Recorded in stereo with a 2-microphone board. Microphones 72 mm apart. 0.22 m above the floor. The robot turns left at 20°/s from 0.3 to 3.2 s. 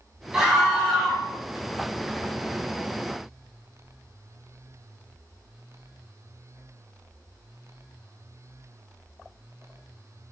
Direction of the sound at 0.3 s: 10° right (ahead or behind).